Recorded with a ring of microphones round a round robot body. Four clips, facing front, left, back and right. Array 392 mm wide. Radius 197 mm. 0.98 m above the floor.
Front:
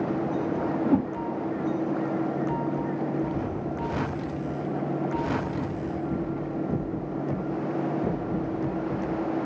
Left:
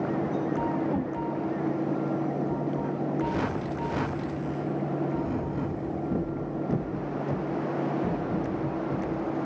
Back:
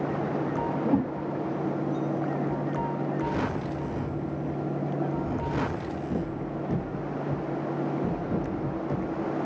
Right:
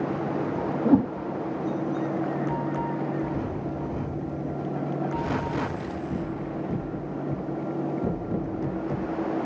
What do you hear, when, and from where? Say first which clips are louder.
0.8 s a whoosh: right 8 dB, front 2 dB; 75° right, 1.2 m